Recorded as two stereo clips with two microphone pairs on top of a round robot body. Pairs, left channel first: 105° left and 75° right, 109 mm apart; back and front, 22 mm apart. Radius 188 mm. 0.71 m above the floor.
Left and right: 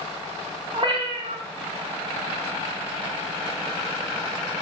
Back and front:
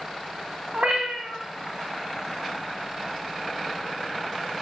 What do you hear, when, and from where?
0.7 s a cat meowing: 30° right, 2 m